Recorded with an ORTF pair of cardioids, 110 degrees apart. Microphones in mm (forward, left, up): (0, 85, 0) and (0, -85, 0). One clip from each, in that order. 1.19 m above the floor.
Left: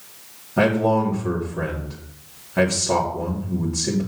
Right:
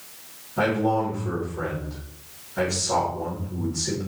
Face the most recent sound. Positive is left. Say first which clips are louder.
# left 4 dB
turn(degrees=60)